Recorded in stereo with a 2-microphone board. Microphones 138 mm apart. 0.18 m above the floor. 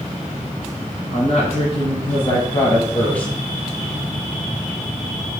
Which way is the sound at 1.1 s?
55° left (ahead or behind).